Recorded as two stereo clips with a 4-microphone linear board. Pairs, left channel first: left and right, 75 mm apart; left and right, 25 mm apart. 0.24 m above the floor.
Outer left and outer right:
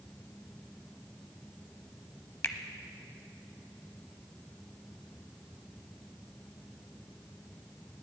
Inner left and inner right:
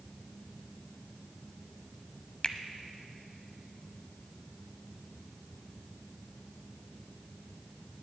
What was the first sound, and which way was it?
A finger snap, 35° left (ahead or behind).